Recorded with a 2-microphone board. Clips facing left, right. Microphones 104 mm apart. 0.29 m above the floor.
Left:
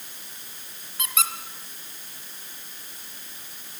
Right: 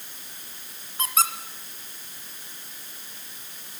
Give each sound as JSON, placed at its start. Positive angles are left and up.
{"t": 1.0, "sound": "a squeak", "side_deg": -30, "distance_m": 2.5}